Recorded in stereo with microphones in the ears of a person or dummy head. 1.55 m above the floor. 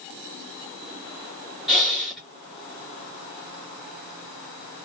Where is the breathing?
Centre (ahead or behind), 1.1 m.